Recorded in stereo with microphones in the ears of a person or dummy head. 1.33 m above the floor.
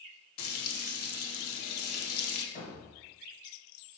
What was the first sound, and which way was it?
Frying, 70° left (ahead or behind).